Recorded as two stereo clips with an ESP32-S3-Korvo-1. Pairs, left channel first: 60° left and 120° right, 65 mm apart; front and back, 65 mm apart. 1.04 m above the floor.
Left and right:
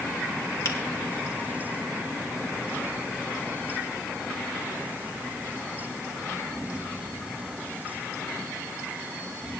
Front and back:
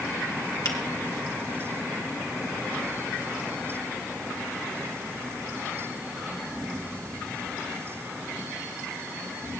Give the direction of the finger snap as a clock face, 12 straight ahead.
11 o'clock.